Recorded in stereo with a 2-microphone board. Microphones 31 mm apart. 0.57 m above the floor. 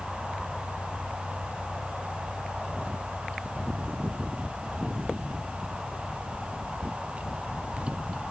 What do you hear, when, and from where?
Only background noise.